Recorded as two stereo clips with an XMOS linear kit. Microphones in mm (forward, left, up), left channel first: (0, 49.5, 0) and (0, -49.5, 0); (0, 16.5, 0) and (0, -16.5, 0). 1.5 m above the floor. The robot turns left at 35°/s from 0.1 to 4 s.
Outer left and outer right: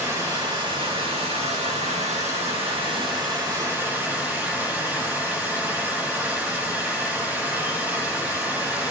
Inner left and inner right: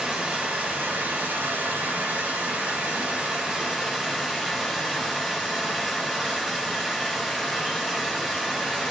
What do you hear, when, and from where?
0.0 s running water: 30° right, 2 m; by 8.9 s 165° right, 2 m